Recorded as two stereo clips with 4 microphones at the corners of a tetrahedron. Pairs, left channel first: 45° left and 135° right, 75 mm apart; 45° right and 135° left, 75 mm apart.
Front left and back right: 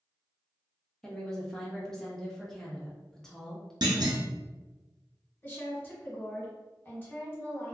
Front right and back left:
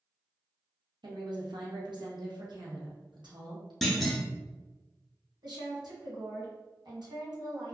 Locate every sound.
1.0 s a woman speaking: 130° left, 0.9 m
3.8 s a clunk: 135° right, 0.6 m
5.4 s a woman speaking: 110° left, 1.5 m